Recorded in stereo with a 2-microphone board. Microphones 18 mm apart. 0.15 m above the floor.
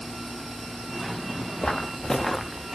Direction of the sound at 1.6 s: 55° left (ahead or behind).